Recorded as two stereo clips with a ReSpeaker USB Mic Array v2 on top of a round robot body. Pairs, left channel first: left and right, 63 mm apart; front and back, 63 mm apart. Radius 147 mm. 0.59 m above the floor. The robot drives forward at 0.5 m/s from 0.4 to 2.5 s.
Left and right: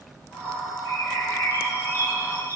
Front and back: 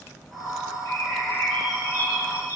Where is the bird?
40° left, 9 m; by 2.6 s 45° left, 8.5 m.